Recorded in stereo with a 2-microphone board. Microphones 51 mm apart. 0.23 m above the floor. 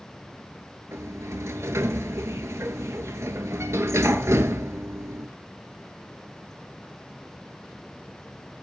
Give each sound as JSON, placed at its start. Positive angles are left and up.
{"t": 0.9, "sound": "a sliding door", "side_deg": -75, "distance_m": 0.8}